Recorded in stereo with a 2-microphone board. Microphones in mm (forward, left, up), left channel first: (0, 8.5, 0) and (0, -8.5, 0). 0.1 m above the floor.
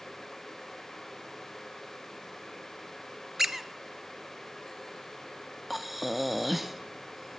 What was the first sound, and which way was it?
A squeak, 20° right (ahead or behind).